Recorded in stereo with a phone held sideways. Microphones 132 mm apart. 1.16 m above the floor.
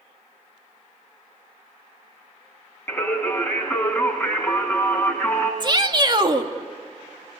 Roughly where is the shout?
Right.